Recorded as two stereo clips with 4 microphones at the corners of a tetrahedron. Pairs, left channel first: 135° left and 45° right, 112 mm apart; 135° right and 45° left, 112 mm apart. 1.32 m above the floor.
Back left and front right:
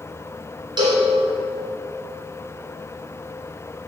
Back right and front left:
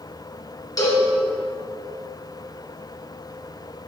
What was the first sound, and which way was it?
A cowbell, 85° right.